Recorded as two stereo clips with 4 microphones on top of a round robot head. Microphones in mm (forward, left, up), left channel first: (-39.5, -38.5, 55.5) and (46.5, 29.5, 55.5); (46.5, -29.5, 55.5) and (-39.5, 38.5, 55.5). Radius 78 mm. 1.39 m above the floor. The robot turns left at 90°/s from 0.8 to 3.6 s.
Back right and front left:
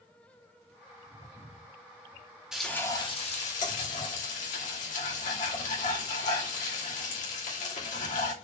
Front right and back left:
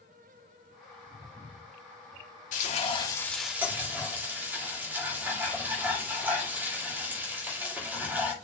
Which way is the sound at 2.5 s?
45° right.